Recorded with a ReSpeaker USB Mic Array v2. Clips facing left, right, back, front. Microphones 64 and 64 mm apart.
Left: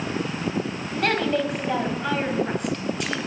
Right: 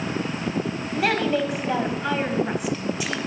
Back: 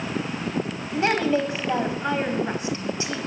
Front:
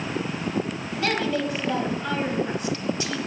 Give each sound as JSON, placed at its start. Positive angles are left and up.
{"t": 0.9, "sound": "a woman speaking", "azimuth_deg": -170, "distance_m": 1.4}